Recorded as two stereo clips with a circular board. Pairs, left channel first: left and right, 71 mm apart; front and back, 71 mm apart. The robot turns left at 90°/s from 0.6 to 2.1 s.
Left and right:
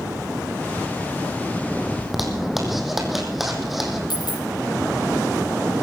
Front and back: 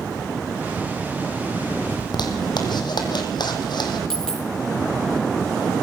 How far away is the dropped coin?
About 2.5 m.